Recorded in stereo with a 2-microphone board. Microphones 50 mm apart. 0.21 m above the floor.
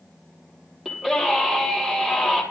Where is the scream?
5° right (ahead or behind), 6 m.